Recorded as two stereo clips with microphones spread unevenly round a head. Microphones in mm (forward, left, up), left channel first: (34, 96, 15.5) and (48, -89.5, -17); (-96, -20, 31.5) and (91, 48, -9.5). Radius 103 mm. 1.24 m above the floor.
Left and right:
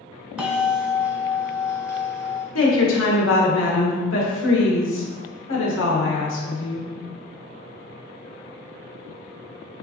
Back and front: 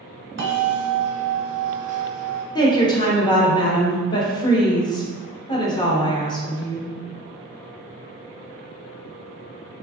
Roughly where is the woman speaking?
Behind left.